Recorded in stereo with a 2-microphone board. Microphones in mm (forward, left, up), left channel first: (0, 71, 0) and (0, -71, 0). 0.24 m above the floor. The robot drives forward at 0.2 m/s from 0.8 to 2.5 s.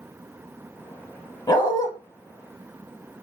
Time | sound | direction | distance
1.5 | a dog barking | 30° left (ahead or behind) | 0.5 m